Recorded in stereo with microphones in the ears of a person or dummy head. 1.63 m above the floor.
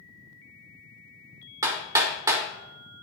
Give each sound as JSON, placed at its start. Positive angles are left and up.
{"t": 1.6, "sound": "hammering", "side_deg": -15, "distance_m": 0.9}